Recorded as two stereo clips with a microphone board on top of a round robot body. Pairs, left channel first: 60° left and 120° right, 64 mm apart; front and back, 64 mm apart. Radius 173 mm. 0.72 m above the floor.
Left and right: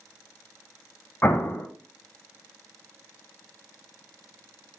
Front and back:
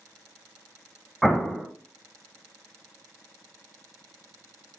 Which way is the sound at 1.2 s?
90° left.